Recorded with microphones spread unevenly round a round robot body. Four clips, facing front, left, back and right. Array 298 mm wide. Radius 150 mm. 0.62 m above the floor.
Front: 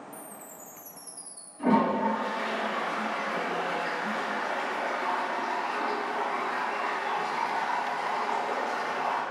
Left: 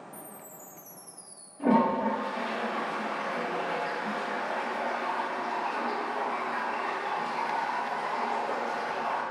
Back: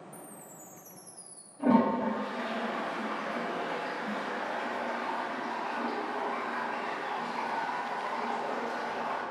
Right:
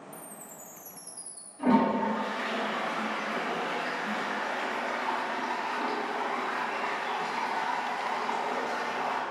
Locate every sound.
0.1 s a chime: 95° right, 1.8 m
1.6 s a toilet flushing: 75° right, 2.0 m